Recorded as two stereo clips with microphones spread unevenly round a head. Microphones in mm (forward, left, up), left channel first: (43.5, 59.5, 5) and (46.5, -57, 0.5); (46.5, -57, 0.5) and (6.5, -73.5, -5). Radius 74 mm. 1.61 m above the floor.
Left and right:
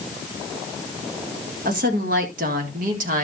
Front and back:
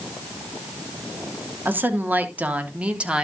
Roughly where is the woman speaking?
Behind right.